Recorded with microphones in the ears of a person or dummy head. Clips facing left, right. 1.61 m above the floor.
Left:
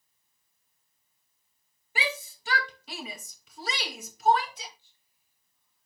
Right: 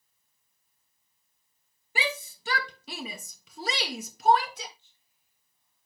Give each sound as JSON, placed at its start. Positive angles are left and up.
{"t": 1.9, "sound": "a shout", "side_deg": -75, "distance_m": 2.5}
{"t": 4.8, "sound": "whispering", "side_deg": -20, "distance_m": 3.5}